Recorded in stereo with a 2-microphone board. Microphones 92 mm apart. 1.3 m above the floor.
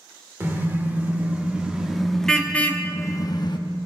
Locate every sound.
0.4 s a car horn: 25° right (ahead or behind), 2 m; by 3.6 s 55° left (ahead or behind), 1.0 m